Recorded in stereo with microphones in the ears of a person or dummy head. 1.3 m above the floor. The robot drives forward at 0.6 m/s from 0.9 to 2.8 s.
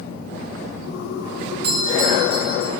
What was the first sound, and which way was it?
A doorbell, 55° right (ahead or behind).